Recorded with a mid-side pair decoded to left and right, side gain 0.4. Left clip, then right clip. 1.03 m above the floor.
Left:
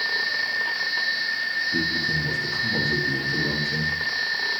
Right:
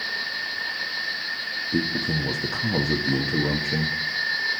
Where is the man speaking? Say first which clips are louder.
Left 2 dB; 50° right, 1.1 m.